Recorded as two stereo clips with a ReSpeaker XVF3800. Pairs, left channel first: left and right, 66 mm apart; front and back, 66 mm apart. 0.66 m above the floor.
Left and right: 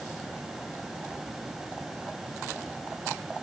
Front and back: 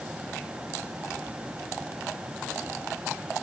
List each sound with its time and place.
Only background noise.